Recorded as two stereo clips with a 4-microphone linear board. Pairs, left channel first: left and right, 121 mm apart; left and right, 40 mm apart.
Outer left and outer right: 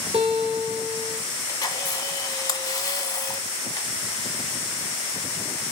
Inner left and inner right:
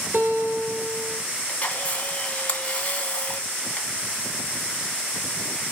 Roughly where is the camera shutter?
Left.